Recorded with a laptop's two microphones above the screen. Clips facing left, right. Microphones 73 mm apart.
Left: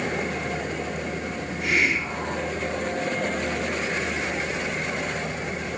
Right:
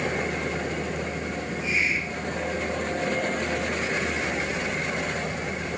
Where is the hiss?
70° left (ahead or behind), 4.5 m.